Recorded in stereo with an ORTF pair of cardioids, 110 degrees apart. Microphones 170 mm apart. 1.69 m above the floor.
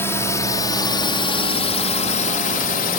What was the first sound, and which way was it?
A drone, 15° left.